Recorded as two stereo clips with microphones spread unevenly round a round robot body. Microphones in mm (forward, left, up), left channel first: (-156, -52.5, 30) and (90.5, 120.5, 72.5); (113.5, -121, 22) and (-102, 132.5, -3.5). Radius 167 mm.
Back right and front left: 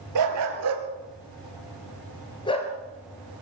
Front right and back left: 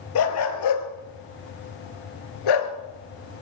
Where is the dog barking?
Straight ahead, 2.5 m; by 2.7 s 75° right, 2 m.